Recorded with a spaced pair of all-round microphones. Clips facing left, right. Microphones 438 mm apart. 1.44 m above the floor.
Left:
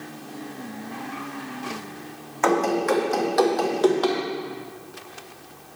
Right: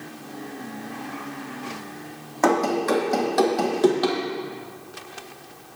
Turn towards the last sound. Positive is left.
turn(degrees=-35)  # may be behind; listen again after turning